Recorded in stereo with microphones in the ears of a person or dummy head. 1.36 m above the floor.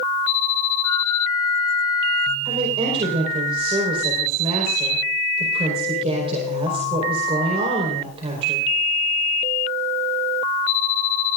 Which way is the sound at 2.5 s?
35° right (ahead or behind).